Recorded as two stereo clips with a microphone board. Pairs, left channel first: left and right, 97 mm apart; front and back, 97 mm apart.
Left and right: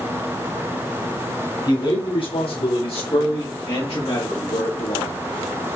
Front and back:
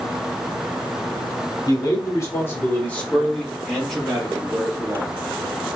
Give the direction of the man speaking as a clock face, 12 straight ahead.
10 o'clock.